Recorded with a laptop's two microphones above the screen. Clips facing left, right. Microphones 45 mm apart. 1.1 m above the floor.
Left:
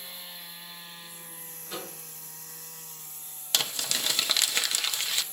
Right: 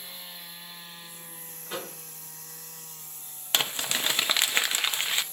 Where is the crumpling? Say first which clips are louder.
Right 3 dB; 30° right (ahead or behind), 0.8 m.